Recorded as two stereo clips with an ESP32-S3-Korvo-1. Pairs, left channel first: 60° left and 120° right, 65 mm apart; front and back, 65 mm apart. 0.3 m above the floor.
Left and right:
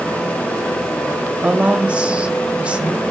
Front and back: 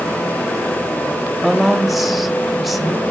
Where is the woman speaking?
95° right, 1.0 m.